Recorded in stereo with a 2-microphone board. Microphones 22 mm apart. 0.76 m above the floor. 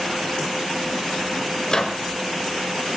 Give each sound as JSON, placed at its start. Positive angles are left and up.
{"t": 1.7, "sound": "a microwave", "side_deg": 35, "distance_m": 2.0}